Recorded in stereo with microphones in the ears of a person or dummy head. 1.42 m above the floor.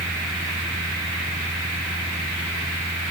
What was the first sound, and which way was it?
A fan, 20° right (ahead or behind).